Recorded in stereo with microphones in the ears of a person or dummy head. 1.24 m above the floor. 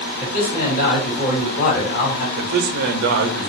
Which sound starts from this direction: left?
A man speaking, at 0.2 s.